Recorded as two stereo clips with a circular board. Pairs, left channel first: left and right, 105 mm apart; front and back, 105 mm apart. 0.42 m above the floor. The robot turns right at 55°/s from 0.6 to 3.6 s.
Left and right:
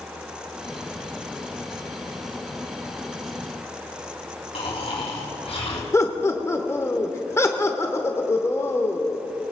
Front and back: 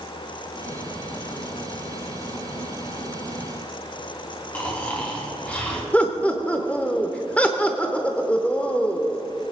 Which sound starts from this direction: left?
Snoring, at 4.5 s.